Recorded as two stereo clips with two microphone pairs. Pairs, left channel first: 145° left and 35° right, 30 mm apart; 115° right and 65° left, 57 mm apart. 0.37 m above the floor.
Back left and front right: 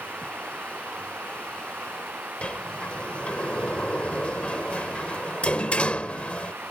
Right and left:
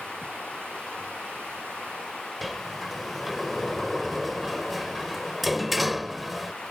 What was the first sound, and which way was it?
Running water, 35° right.